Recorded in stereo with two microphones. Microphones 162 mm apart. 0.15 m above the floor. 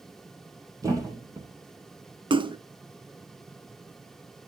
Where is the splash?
30° right (ahead or behind), 0.6 m.